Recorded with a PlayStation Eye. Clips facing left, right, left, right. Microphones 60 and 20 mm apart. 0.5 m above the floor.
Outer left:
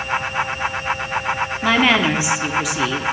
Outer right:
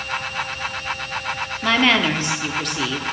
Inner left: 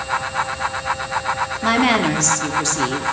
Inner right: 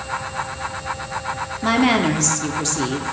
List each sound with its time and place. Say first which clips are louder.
1.6 s a woman speaking: outer left 1 dB, even; 10° left (ahead or behind), 0.7 m